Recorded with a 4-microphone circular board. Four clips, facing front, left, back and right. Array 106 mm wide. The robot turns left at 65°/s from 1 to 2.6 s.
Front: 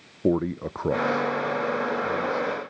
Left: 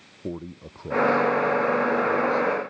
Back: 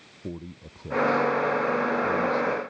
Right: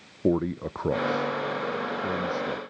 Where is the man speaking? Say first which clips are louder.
Right 10 dB, front 15 dB; 35° right; by 2.6 s 135° right.